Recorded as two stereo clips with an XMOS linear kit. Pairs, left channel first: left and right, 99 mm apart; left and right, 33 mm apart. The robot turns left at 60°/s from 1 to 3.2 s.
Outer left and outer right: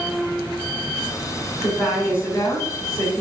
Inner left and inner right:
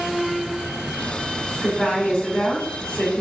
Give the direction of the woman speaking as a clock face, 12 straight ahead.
6 o'clock.